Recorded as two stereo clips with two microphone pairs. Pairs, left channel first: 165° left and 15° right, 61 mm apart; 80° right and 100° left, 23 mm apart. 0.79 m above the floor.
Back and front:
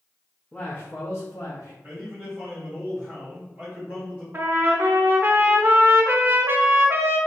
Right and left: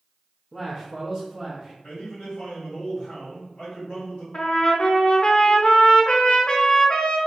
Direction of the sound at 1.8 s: 75° right.